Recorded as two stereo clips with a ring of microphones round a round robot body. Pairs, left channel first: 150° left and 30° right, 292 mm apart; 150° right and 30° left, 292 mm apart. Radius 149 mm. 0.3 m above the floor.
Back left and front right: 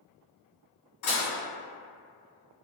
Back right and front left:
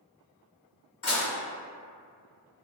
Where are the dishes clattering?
170° left, 1.7 m.